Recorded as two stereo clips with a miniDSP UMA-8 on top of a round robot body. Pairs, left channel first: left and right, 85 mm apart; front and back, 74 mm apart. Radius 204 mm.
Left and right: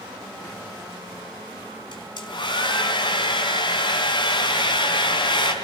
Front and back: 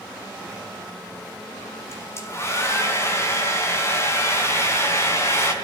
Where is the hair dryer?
55° left, 4 m.